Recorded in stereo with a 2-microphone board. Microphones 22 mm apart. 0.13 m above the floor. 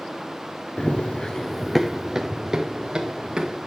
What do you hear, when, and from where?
0.8 s running footsteps: 80° left, 1.1 m; by 3.6 s 45° right (ahead or behind), 3 m